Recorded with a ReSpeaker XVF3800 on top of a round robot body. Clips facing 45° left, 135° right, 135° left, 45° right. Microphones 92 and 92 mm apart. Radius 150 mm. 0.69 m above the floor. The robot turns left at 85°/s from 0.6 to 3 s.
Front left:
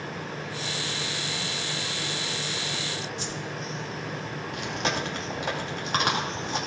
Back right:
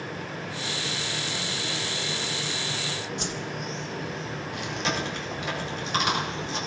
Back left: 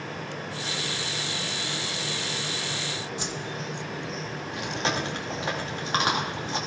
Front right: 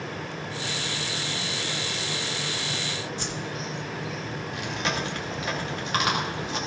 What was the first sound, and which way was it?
A whoosh, 150° right.